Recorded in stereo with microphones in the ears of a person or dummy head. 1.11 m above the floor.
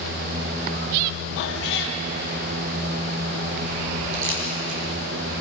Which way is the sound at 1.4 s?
65° left (ahead or behind).